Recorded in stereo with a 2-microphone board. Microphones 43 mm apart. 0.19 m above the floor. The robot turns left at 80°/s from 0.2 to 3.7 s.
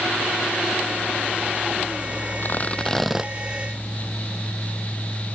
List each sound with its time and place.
2.4 s tearing paper: 55° left; by 3.3 s 15° right